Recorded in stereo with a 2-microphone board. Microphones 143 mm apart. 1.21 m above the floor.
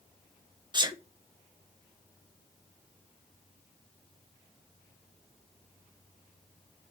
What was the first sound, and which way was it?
A sneeze, 30° right (ahead or behind).